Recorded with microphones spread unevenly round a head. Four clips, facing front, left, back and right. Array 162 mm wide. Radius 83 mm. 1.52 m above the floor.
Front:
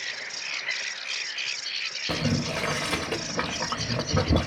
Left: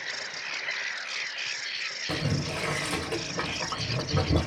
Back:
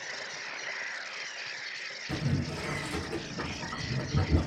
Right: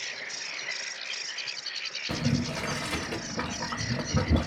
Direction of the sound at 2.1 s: 5° left.